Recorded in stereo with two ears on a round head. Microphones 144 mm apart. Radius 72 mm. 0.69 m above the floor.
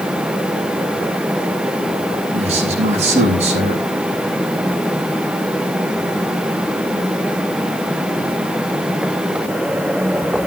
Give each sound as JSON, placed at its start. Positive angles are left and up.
{"t": 2.3, "sound": "a man speaking", "side_deg": -40, "distance_m": 6.5}